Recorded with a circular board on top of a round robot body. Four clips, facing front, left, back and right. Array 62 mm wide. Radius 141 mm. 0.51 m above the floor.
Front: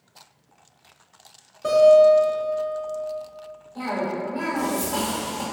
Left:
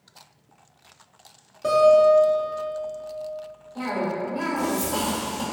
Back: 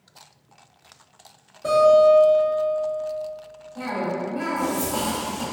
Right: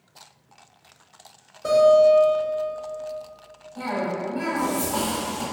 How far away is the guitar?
About 1.2 m.